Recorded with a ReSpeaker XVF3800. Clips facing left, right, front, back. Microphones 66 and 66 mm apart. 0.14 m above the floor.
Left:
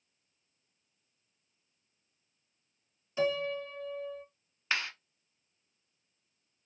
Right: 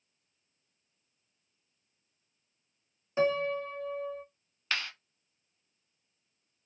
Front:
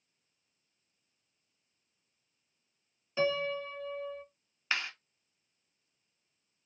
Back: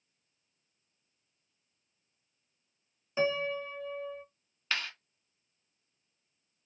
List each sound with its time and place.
3.2 s a piano: 115° right, 0.5 m
4.7 s a clap: 50° left, 0.8 m